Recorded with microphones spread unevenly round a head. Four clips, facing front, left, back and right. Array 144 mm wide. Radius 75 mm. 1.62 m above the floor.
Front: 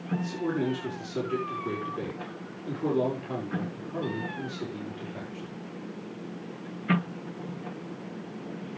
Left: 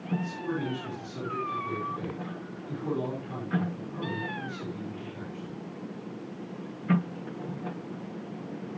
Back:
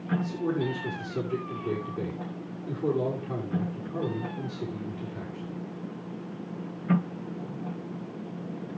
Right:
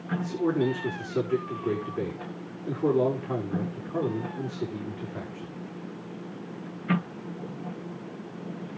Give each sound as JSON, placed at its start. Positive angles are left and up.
{"t": 0.2, "sound": "a man speaking", "azimuth_deg": -60, "distance_m": 5.0}